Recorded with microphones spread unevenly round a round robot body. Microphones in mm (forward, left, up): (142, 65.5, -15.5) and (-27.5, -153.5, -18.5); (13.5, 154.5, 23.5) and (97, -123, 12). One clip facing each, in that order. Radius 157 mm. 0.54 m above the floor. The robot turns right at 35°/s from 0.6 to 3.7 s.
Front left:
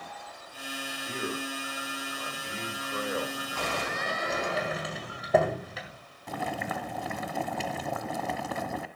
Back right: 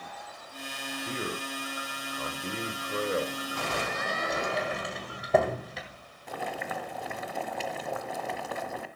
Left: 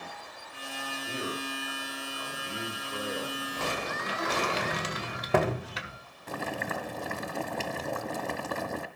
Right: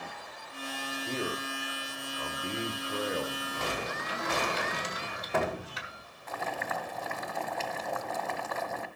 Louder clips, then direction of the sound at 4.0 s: Even, left 4 dB; 140° left.